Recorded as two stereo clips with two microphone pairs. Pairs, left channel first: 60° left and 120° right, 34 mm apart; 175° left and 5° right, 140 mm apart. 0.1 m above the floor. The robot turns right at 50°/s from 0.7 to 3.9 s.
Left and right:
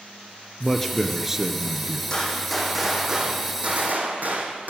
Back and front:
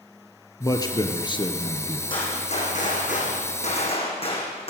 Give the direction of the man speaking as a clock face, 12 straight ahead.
8 o'clock.